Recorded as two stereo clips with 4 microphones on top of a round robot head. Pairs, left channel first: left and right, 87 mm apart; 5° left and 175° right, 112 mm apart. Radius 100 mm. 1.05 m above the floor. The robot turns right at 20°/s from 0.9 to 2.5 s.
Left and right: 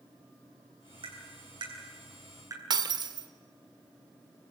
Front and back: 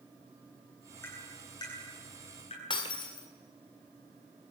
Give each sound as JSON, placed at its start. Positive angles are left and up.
{"t": 1.0, "sound": "tapping", "azimuth_deg": -70, "distance_m": 9.5}
{"t": 2.7, "sound": "breaking glass", "azimuth_deg": -55, "distance_m": 1.9}